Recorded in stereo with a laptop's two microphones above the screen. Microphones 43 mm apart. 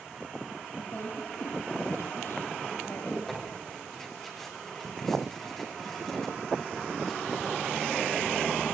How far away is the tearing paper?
About 6.5 m.